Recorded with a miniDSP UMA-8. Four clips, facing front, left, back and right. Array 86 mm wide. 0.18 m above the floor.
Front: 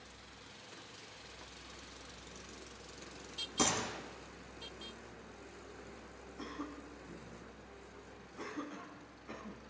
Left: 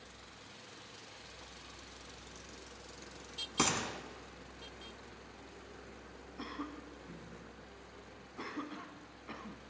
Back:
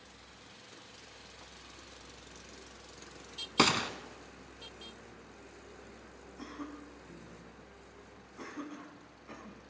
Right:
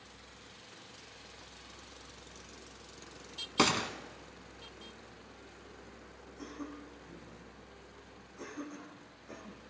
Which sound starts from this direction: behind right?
A gunshot, at 3.6 s.